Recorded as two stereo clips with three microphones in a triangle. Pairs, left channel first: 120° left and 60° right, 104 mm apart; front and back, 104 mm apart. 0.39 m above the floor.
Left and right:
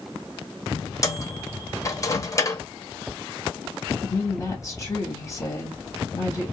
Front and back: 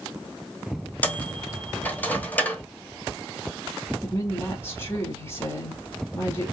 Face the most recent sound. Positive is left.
turn(degrees=65)